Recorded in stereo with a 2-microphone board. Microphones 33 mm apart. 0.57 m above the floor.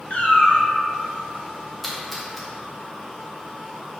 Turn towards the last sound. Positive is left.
turn(degrees=5)  # may be behind; listen again after turning